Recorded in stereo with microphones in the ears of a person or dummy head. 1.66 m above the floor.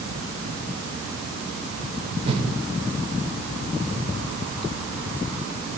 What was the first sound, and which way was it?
A whoosh, 35° right (ahead or behind).